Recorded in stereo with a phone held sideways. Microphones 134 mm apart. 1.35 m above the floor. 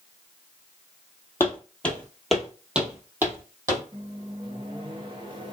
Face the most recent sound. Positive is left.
turn(degrees=-35)  # may be behind; listen again after turning